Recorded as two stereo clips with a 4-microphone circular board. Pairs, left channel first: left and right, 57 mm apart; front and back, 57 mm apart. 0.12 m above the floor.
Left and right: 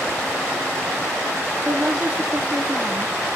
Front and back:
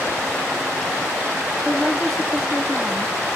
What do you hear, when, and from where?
1.6 s a woman speaking: 85° right, 1.1 m